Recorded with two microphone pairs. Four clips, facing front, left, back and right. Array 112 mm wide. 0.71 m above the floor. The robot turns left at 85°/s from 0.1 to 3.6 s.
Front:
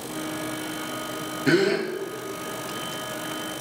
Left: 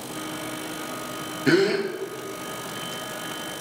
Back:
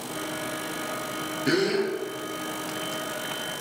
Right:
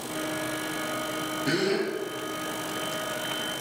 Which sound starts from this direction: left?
A gasp, at 1.5 s.